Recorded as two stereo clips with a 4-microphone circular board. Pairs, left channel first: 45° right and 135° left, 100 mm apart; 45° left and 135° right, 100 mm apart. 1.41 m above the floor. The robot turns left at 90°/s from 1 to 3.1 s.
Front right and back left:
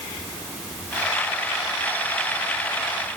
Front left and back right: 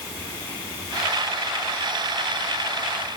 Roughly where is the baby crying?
No baby crying in this recording.